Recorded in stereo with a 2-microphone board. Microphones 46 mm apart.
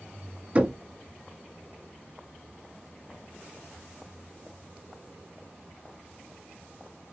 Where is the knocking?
25° right (ahead or behind), 0.9 m.